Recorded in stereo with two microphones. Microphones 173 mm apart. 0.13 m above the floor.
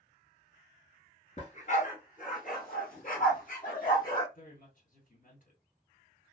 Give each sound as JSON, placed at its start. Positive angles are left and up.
{"t": 1.4, "sound": "a dog barking", "side_deg": 40, "distance_m": 0.8}
{"t": 4.3, "sound": "a woman speaking", "side_deg": 55, "distance_m": 1.8}